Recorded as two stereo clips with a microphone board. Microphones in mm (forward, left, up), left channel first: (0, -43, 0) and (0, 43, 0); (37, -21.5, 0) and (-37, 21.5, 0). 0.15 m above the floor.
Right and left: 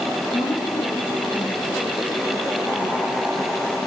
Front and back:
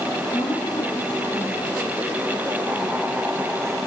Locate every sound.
0.3 s a woman speaking: 70° right, 5.5 m